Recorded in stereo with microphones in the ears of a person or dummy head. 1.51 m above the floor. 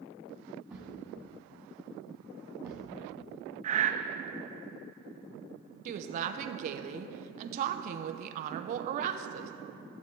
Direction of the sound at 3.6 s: 40° right (ahead or behind).